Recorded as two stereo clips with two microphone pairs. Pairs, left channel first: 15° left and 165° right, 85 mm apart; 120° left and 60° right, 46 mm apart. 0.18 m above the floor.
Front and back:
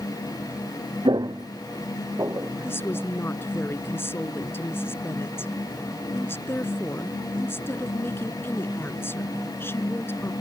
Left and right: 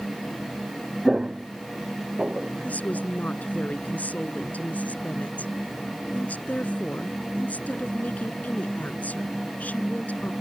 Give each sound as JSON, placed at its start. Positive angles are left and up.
{"t": 1.1, "sound": "footsteps", "azimuth_deg": -140}
{"t": 2.6, "sound": "a woman speaking", "azimuth_deg": 75}